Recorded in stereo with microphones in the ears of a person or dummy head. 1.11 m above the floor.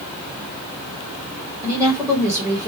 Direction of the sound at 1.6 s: 20° right (ahead or behind).